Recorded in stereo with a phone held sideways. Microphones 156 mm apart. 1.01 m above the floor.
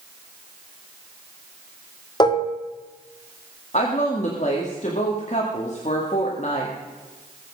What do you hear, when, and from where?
2.2 s dishes clattering: 30° left (ahead or behind), 1.3 m
3.7 s a woman speaking: 50° left (ahead or behind), 2 m